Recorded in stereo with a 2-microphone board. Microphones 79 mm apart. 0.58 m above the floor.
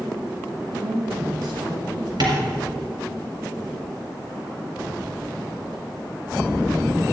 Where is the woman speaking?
65° right (ahead or behind), 4 m.